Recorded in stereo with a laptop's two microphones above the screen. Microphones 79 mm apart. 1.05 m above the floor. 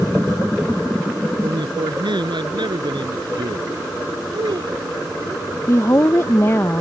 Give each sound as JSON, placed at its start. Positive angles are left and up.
{"t": 1.4, "sound": "a man speaking", "side_deg": -70}
{"t": 4.3, "sound": "a child speaking", "side_deg": -85}
{"t": 5.7, "sound": "a woman speaking", "side_deg": 35}